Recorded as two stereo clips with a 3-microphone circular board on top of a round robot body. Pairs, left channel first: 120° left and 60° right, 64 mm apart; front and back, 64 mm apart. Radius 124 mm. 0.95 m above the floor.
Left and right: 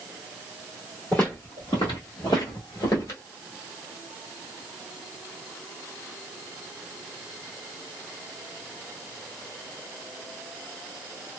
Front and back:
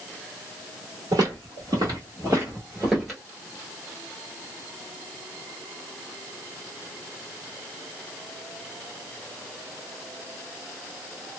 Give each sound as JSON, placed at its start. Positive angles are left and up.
{"t": 1.1, "sound": "footsteps", "azimuth_deg": -170, "distance_m": 1.1}